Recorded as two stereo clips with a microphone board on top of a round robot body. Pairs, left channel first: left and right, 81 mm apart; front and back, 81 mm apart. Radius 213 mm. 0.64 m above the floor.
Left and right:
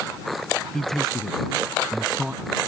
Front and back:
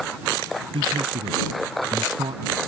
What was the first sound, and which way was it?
A man speaking, 175° left.